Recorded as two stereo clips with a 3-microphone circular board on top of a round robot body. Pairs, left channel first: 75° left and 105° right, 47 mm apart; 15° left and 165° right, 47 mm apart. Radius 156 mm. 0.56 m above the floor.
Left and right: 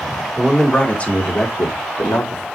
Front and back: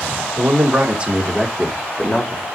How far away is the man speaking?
About 2 m.